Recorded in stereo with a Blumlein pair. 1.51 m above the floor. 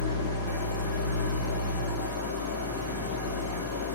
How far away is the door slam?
No door slam in this recording.